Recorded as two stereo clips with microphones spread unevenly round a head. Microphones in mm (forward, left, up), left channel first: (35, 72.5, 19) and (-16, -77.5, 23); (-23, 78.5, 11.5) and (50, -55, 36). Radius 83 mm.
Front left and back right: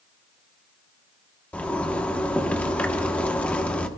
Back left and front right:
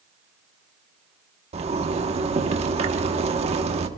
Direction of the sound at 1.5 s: 10° right.